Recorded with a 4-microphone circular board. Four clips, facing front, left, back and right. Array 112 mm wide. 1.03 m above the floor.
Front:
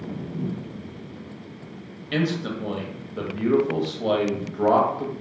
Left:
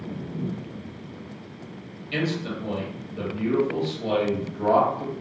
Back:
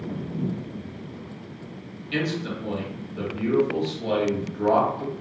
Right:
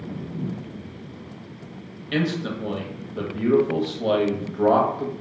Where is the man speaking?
40° right, 0.7 m.